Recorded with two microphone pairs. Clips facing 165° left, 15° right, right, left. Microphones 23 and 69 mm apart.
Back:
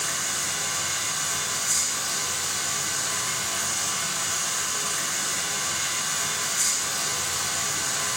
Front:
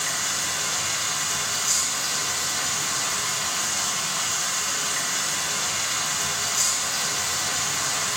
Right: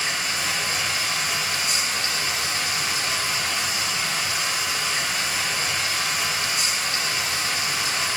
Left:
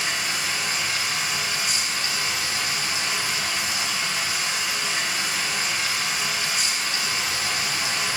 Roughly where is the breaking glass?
I don't hear breaking glass.